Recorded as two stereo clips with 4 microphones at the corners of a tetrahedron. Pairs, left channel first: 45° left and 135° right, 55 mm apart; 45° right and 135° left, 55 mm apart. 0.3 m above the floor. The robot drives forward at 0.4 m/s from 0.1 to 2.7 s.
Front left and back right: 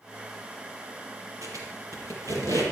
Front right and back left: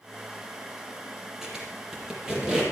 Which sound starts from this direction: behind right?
A squeak, at 1.4 s.